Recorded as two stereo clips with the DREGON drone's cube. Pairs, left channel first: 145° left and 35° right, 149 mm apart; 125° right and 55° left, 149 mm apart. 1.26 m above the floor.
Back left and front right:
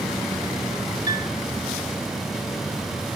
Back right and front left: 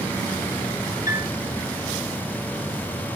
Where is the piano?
100° right, 1.0 m.